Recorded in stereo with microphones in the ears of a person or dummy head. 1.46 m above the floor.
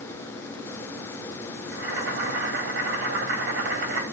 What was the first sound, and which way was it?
Boiling, 60° right (ahead or behind).